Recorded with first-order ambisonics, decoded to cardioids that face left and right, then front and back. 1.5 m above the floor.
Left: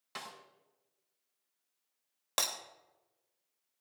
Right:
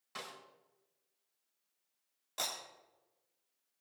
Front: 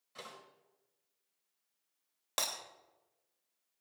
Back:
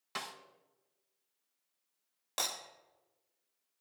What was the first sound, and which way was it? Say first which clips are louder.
A snare drum: left 1 dB, back 8 dB; 160° left.